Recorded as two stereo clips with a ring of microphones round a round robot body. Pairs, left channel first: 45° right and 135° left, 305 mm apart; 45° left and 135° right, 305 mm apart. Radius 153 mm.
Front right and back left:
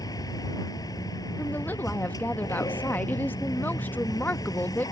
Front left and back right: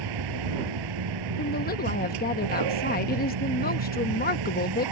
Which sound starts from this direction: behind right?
A vehicle, at 0.0 s.